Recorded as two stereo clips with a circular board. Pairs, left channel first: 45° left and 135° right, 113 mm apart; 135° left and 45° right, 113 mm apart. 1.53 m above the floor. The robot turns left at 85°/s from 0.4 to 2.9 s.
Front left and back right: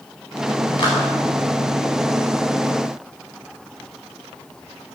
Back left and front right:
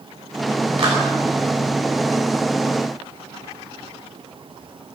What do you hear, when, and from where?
0.8 s a clap: straight ahead, 9.5 m; by 1.0 s 15° right, 9.5 m